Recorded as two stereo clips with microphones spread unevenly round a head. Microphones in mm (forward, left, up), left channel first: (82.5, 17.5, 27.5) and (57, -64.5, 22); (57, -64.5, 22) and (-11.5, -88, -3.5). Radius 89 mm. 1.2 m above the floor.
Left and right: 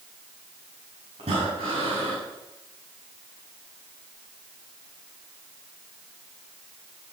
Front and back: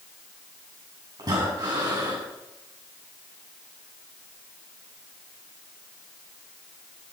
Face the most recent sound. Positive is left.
turn(degrees=-135)